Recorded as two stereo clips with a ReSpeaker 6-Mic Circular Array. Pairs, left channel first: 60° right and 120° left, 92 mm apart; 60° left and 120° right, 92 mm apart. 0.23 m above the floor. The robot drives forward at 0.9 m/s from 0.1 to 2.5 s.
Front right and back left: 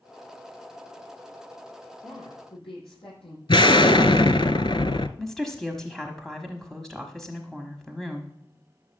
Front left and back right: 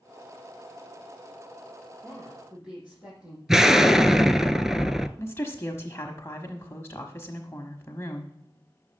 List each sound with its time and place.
2.0 s a woman speaking: 40° right, 8 m
3.5 s an explosion: 35° right, 0.6 m
5.2 s a woman speaking: 25° left, 1.2 m